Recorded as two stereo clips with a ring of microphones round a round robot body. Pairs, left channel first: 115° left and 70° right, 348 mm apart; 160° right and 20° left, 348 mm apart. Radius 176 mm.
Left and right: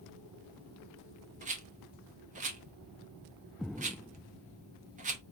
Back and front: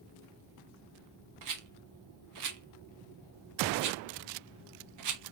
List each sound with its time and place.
1.4 s a rattle: straight ahead, 1.0 m